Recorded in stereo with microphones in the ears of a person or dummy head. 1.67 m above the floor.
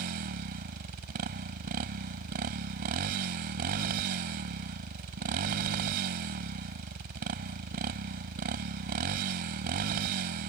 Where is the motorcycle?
50° right (ahead or behind).